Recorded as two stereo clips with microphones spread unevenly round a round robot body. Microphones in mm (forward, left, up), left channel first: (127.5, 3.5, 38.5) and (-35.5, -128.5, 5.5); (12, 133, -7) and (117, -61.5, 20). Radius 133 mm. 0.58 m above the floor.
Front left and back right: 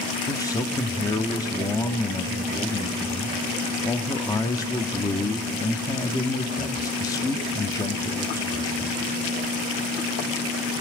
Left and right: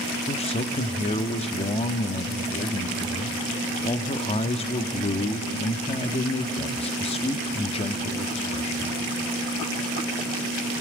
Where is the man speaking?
115° left, 0.8 m.